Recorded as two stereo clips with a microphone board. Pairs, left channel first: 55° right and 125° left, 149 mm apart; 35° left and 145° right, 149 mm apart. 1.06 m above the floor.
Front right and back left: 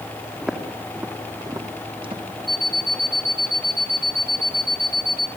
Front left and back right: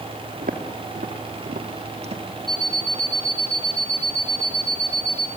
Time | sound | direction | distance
0.4 | footsteps | 145° right | 3.5 m
2.5 | an alarm clock | 145° right | 3 m